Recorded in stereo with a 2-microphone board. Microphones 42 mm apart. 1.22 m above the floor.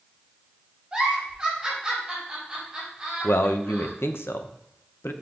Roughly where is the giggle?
Centre.